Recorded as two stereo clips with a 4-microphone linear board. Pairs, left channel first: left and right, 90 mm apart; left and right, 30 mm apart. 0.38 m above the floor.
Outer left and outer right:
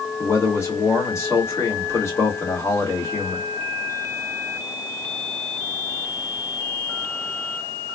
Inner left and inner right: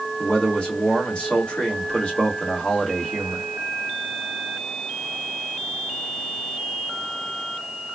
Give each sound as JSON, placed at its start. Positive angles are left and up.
{"t": 0.2, "sound": "a man speaking", "side_deg": 30, "distance_m": 1.4}